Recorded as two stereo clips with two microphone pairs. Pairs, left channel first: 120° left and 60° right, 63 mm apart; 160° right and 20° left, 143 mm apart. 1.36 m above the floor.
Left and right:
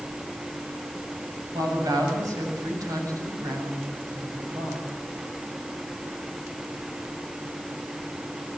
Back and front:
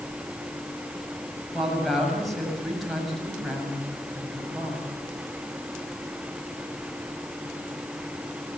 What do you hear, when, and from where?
1.5 s a woman speaking: 70° right, 7.5 m